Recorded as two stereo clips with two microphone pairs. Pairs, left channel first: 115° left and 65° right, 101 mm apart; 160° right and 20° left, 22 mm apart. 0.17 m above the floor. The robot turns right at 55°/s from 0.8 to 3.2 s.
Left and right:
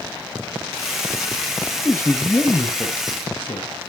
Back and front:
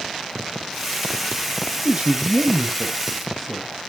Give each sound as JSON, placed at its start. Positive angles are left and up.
{"t": 1.9, "sound": "a man speaking", "azimuth_deg": 20, "distance_m": 1.7}